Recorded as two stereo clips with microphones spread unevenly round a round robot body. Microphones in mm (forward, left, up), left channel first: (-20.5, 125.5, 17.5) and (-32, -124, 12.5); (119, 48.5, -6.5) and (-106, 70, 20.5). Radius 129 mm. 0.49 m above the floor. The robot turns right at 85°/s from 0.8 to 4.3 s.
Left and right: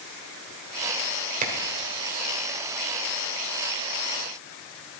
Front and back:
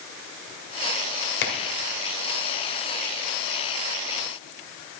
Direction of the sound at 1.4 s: 35° right.